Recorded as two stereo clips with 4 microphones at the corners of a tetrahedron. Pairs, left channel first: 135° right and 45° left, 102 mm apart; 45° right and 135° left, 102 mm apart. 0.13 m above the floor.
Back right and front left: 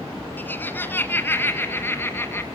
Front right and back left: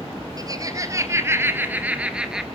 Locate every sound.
0.4 s laughter: 165° left, 2 m; by 2.4 s 145° right, 1.6 m